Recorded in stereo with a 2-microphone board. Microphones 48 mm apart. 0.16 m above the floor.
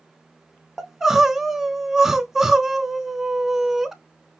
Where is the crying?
10° right (ahead or behind), 0.7 m.